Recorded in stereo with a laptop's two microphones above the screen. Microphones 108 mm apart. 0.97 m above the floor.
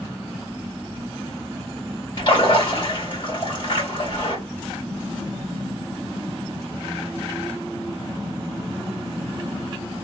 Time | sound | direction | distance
2.2 | a splash | 45° left (ahead or behind) | 2 m